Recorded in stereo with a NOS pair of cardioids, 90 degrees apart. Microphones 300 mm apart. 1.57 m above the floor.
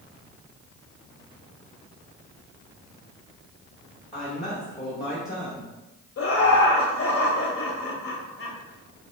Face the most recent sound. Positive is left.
turn(degrees=50)